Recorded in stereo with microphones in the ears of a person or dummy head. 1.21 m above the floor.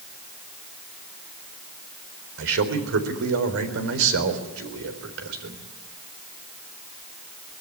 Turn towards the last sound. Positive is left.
turn(degrees=-75)  # may be behind; listen again after turning